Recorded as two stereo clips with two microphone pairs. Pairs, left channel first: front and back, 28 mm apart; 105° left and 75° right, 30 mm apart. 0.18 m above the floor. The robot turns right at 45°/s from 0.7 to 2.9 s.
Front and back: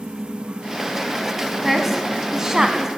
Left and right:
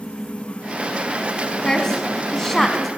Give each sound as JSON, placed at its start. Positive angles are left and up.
{"t": 1.6, "sound": "a woman speaking", "azimuth_deg": 115, "distance_m": 1.4}